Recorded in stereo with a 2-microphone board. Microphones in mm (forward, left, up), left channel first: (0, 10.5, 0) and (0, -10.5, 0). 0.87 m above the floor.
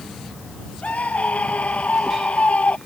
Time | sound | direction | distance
0.8 | a scream | 85° left | ?